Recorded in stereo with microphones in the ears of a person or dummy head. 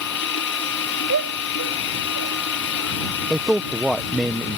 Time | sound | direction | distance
0.0 | running water | 65° left (ahead or behind) | ?
1.1 | a shout | 75° right (ahead or behind) | ?
3.3 | a man speaking | centre (ahead or behind) | ?